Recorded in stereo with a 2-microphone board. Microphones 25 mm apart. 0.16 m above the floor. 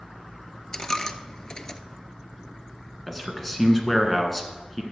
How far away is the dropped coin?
About 0.5 m.